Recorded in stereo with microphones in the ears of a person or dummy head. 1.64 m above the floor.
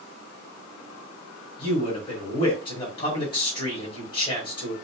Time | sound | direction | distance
1.6 | a man speaking | 40° left (ahead or behind) | 1.2 m